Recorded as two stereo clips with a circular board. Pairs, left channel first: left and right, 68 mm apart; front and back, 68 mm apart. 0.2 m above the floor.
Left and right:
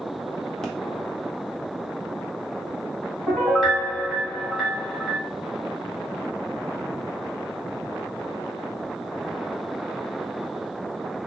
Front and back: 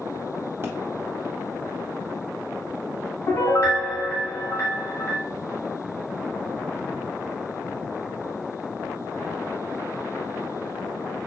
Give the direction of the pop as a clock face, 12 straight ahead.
6 o'clock.